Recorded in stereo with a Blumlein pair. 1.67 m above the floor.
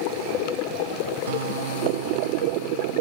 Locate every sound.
1.3 s a guitar: 60° right